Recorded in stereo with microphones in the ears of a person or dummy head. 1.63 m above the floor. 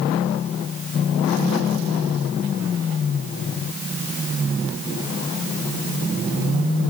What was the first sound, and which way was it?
Only background noise.